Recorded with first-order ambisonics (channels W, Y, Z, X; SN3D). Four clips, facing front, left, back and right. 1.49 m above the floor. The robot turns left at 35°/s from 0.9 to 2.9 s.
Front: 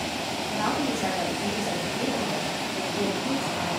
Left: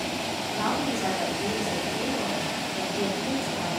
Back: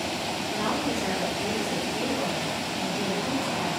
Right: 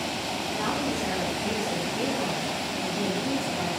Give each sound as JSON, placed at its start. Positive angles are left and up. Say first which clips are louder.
{"t": 0.5, "sound": "a woman speaking", "louder": "left 1 dB, front 1 dB", "azimuth_deg": 5, "distance_m": 2.5}